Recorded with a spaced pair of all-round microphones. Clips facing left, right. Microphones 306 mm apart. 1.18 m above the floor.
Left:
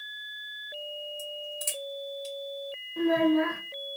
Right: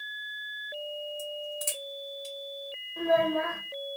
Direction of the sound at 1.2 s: 20° right (ahead or behind).